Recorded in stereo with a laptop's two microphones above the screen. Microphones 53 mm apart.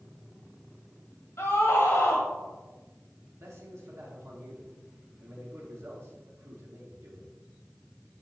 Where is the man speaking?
60° right (ahead or behind), 2.5 m.